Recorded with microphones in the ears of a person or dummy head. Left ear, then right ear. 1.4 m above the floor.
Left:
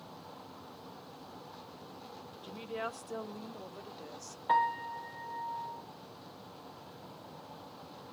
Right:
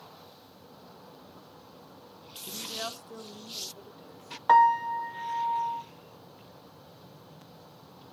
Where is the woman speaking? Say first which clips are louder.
Right 3 dB; 15° right (ahead or behind), 0.8 m; by 4.4 s 70° left (ahead or behind), 1.8 m.